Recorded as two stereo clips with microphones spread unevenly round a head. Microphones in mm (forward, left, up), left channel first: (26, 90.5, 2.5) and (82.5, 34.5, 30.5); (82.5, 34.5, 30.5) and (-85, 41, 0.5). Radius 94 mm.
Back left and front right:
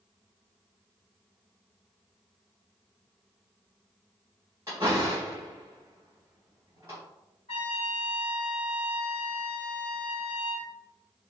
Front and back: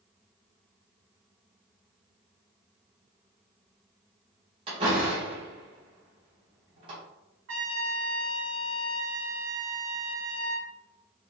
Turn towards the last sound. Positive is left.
turn(degrees=-175)